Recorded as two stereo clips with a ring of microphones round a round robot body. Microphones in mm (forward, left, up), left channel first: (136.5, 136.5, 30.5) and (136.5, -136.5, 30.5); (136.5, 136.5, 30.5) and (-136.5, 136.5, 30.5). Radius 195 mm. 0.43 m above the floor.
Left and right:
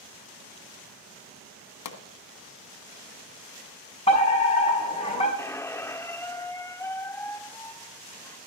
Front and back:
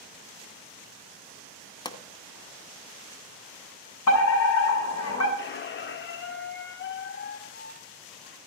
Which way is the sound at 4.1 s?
25° left.